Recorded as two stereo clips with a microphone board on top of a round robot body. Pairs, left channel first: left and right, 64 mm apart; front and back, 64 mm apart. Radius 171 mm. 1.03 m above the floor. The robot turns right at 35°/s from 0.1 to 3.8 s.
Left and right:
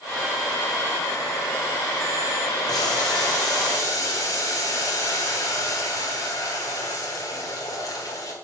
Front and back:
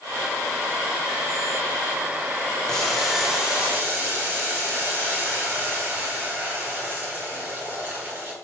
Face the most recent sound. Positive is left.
turn(degrees=120)